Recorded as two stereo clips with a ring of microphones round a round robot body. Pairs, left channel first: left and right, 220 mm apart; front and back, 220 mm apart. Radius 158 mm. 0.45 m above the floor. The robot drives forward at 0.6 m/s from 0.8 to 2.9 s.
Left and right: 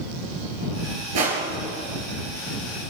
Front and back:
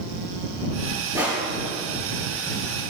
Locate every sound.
1.1 s crushing: 100° right, 5.5 m